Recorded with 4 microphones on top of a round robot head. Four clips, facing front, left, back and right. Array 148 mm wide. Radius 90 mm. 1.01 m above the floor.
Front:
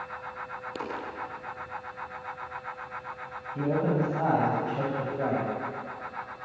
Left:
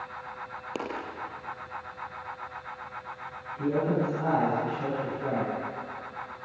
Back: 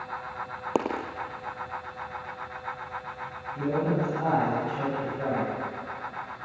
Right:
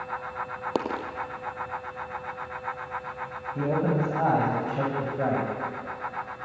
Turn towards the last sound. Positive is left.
turn(degrees=-65)